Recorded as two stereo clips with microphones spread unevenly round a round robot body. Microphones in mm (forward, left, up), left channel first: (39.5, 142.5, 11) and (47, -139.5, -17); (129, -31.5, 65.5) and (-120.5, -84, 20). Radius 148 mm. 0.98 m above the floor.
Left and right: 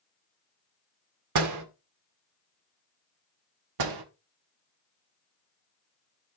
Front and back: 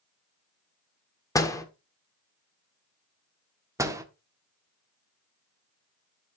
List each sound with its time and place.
1.4 s a door slam: 65° right, 1.8 m
3.8 s a door slam: 90° right, 1.5 m